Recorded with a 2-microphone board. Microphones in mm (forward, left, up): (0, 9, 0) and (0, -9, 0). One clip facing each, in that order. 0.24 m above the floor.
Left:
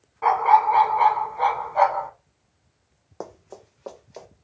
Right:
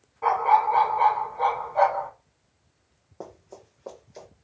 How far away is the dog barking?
About 0.7 m.